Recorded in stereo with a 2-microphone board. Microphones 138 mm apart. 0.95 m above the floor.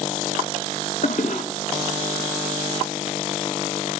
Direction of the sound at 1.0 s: 60° left (ahead or behind).